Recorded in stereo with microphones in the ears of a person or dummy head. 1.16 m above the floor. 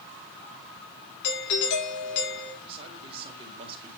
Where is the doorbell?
65° left (ahead or behind), 4.5 m.